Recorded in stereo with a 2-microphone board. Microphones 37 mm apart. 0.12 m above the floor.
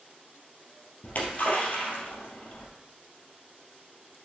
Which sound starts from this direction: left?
A splash, at 1.0 s.